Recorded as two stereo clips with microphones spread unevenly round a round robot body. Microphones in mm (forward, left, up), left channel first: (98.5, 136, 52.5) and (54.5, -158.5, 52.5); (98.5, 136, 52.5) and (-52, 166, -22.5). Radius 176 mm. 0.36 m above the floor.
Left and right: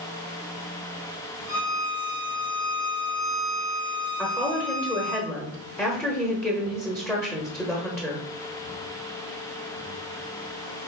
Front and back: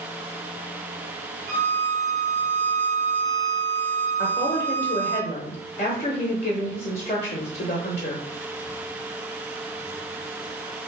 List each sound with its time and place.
1.5 s a violin: 160° right, 1.2 m
4.2 s a woman speaking: 5° left, 1.1 m